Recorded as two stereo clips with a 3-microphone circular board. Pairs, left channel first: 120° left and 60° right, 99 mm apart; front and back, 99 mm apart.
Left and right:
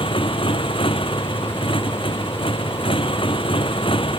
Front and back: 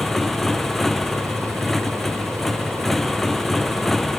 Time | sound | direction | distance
0.0 | a motorcycle | 90° left | ?